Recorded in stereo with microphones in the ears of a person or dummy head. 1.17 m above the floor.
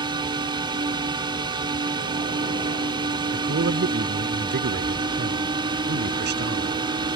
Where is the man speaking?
50° right (ahead or behind).